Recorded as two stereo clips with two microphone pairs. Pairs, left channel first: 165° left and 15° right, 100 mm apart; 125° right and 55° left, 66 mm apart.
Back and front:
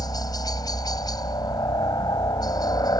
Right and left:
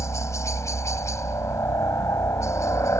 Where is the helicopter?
155° right.